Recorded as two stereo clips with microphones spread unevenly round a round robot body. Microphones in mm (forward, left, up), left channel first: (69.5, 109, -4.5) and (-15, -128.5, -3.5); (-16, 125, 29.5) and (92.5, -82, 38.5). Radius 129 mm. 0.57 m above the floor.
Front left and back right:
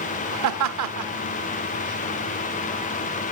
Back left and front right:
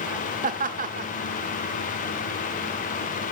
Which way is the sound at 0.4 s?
120° right.